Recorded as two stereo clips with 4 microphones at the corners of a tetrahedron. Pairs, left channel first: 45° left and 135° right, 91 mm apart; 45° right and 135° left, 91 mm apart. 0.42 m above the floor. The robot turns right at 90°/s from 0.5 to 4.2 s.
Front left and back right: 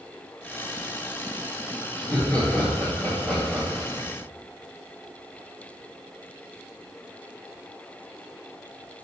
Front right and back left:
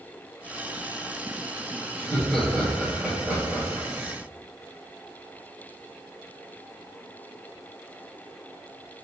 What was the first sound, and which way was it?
Laughter, 30° right.